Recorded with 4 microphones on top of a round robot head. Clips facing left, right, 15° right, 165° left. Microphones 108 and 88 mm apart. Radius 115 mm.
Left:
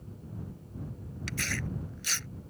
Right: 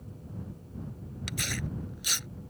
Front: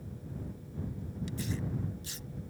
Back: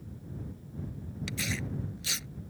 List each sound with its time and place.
1.3 s tearing paper: 165° right